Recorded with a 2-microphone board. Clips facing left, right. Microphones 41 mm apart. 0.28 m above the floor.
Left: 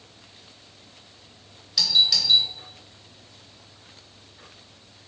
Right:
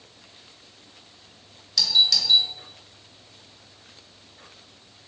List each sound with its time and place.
1.8 s a doorbell: 10° left (ahead or behind), 1.7 m